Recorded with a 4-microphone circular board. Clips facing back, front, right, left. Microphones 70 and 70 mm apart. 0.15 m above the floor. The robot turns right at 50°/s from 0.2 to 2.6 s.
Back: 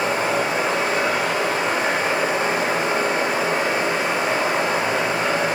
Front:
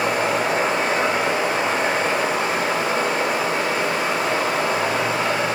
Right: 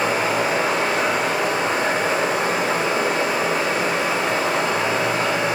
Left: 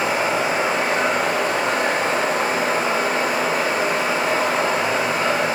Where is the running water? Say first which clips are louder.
Even, even; 5° left, 1.3 m; by 5.6 s 125° left, 1.3 m.